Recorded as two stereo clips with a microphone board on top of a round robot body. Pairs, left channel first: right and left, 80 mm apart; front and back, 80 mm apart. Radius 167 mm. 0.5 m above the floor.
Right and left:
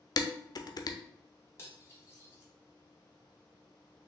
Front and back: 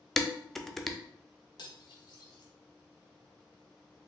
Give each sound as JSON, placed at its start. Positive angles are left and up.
{"t": 0.2, "sound": "dishes clattering", "azimuth_deg": -85, "distance_m": 0.6}
{"t": 1.6, "sound": "cutlery clinking", "azimuth_deg": -35, "distance_m": 1.1}